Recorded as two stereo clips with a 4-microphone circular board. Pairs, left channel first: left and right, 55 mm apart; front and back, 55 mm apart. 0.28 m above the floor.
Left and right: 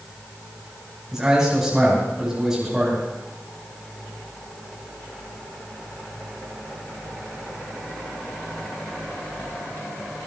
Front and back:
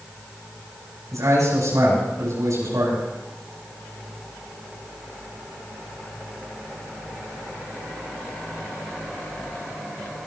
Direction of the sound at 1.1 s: 170° right.